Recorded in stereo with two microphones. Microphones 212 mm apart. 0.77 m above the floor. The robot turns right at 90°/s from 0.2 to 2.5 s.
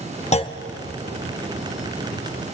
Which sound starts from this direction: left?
A clunk, at 0.3 s.